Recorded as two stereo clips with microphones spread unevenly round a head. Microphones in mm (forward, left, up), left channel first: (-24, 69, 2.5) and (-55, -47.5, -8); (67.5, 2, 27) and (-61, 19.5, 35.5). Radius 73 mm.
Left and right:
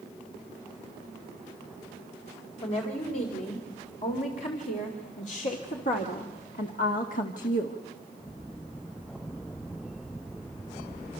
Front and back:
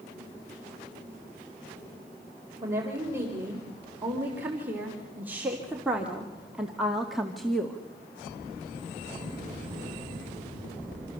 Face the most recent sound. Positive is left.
turn(degrees=75)